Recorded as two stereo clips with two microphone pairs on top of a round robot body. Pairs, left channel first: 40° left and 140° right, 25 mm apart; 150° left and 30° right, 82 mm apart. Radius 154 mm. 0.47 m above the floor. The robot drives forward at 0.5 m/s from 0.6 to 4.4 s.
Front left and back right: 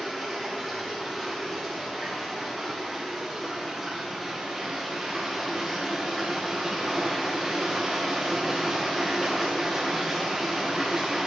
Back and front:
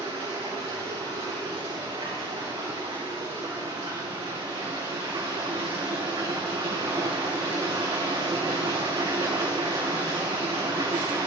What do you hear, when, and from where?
0.0 s running water: 55° right, 5.5 m; by 11.3 s 70° right, 5 m